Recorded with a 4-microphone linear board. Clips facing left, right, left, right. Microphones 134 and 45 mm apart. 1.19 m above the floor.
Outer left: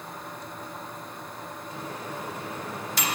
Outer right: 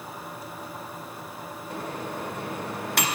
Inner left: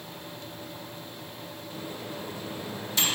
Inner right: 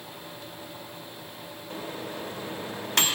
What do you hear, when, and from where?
1.7 s a microwave: 65° right (ahead or behind), 0.7 m